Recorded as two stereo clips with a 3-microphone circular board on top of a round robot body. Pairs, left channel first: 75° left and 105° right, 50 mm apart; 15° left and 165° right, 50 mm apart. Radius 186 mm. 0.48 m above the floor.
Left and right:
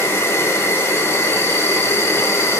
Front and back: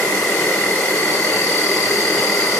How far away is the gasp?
I don't hear a gasp.